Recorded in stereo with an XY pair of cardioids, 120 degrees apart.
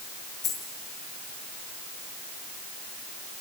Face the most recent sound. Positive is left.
turn(degrees=60)